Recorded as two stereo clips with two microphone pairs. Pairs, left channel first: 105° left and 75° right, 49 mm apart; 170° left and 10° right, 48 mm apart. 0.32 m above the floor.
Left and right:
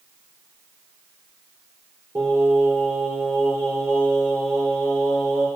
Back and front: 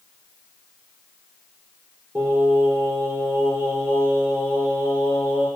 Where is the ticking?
No ticking in this recording.